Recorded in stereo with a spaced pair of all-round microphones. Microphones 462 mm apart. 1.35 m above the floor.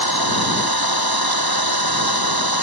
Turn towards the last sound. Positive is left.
turn(degrees=-45)  # may be behind; listen again after turning